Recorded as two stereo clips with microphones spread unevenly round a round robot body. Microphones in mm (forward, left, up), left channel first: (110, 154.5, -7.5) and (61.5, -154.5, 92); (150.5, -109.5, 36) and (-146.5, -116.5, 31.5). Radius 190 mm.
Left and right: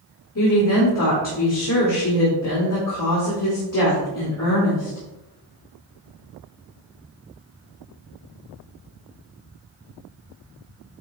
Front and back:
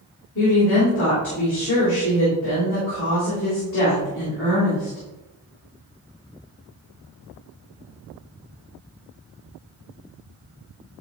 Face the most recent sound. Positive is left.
turn(degrees=55)